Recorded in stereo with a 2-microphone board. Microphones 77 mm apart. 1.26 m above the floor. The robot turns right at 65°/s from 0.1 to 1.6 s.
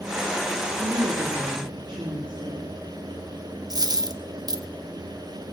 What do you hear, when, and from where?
0.8 s a woman speaking: 140° right, 3 m; by 2.7 s 85° right, 3 m
3.7 s a dropped coin: 55° right (ahead or behind), 0.9 m